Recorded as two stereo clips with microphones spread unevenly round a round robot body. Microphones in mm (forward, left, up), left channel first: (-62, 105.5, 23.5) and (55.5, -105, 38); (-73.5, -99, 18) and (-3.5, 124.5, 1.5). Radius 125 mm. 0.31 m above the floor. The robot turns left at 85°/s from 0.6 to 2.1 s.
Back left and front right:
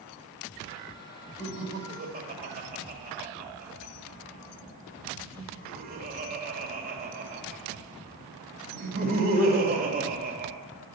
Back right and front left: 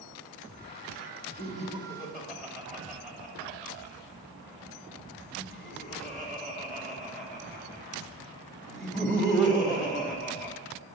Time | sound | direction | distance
1.4 | laughter | 45° left | 1.8 m